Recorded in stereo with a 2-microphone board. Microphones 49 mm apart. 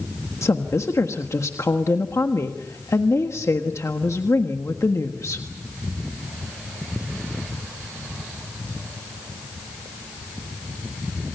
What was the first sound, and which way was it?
A woman speaking, 80° left.